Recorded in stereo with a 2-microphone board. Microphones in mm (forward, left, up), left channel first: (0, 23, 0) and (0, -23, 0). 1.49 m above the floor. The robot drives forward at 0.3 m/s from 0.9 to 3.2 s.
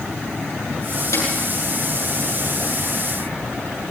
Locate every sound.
1.1 s a snare drum: 80° left, 9.5 m